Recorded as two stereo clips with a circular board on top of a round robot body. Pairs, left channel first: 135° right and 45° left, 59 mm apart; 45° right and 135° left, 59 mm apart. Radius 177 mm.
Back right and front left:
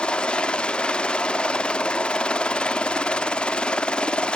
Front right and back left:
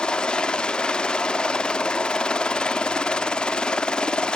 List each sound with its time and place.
0.0 s a helicopter: 95° right